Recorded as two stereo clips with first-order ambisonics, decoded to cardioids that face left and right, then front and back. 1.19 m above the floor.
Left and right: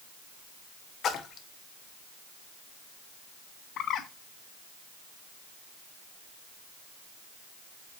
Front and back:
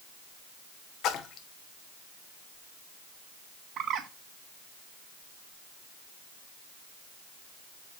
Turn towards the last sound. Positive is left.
turn(degrees=135)